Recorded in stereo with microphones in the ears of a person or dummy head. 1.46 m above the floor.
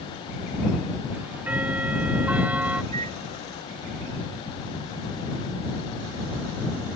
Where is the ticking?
10° right (ahead or behind).